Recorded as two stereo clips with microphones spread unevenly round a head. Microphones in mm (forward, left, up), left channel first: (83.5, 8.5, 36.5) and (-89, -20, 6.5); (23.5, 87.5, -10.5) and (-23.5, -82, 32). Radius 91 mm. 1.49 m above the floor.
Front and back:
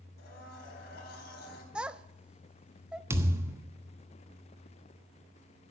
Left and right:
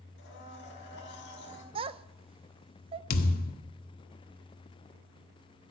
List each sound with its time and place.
0.2 s a blender: 40° left, 4.5 m
1.8 s a child speaking: 80° right, 0.6 m
3.1 s a thud: 110° left, 1.1 m